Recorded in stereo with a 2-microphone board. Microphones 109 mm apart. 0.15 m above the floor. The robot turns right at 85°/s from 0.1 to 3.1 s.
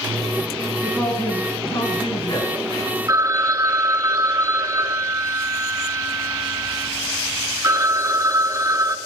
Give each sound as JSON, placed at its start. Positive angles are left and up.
{"t": 0.8, "sound": "a woman speaking", "azimuth_deg": 0, "distance_m": 3.0}
{"t": 3.1, "sound": "a phone ringing", "side_deg": -30, "distance_m": 0.8}